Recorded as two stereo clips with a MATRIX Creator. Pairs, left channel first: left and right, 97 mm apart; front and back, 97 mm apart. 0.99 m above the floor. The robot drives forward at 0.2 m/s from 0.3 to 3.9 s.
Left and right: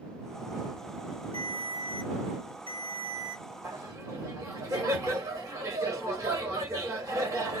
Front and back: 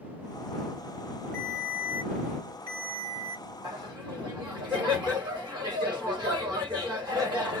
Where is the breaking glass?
I don't hear breaking glass.